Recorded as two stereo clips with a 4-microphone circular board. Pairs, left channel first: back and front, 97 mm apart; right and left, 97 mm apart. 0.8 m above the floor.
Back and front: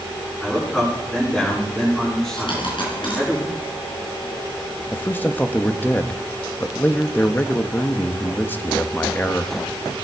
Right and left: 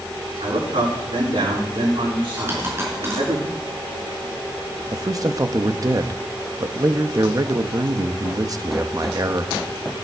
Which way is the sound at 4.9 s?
120° left.